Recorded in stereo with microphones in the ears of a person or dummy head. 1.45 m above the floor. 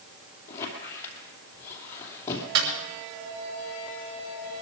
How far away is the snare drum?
About 4.5 m.